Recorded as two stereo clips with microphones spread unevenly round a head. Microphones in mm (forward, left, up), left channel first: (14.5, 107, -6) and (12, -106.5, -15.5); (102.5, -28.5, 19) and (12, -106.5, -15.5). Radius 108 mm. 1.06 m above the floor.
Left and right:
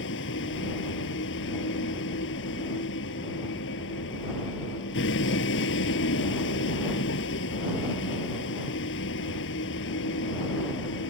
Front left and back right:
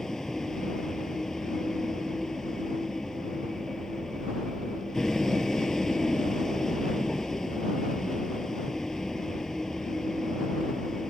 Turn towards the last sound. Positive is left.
turn(degrees=125)